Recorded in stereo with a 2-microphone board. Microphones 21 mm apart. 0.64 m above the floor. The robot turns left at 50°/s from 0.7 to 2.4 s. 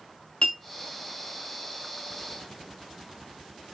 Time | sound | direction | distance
0.4 | a clink | 55° left (ahead or behind) | 1.0 m